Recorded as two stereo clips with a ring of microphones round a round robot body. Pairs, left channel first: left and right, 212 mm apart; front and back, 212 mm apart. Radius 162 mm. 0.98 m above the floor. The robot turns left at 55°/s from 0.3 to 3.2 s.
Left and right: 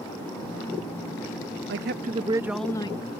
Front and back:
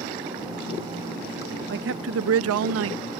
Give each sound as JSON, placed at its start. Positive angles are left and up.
{"t": 1.7, "sound": "a man speaking", "azimuth_deg": -130}